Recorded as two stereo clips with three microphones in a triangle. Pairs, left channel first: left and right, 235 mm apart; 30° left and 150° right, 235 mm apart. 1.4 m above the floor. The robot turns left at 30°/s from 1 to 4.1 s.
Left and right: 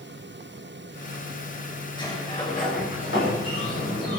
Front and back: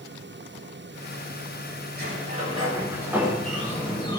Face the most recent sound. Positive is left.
turn(degrees=100)